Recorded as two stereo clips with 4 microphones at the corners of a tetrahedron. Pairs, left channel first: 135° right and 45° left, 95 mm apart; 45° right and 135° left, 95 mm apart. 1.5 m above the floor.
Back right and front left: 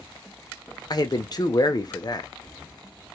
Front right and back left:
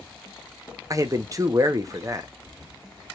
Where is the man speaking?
175° right, 0.8 m.